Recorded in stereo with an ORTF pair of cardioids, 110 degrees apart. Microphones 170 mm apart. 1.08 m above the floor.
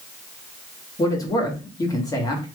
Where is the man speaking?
20° left, 1.4 m.